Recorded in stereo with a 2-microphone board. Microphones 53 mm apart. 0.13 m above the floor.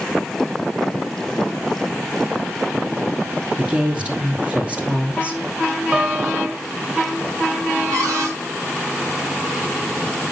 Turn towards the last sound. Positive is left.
turn(degrees=-85)